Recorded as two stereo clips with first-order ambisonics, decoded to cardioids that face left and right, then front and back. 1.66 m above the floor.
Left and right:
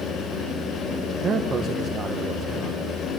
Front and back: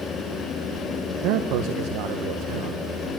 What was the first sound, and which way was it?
A man speaking, 160° right.